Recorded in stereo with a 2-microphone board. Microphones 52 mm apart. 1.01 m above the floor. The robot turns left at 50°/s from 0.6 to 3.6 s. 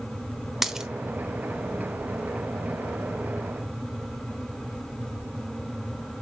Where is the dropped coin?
10° right (ahead or behind), 0.8 m; by 0.9 s 15° right (ahead or behind), 0.8 m.